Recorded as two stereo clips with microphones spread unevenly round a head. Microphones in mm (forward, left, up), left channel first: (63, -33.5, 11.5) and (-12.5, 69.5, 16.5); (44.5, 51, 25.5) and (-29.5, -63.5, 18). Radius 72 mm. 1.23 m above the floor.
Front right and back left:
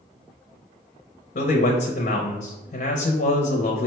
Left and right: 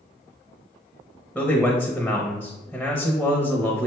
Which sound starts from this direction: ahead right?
A man speaking, at 1.4 s.